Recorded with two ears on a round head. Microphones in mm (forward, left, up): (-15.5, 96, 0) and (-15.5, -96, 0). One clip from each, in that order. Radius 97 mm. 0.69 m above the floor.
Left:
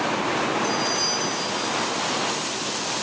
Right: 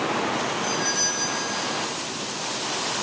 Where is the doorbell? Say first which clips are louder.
Left 1 dB; 60° right (ahead or behind), 7.5 m.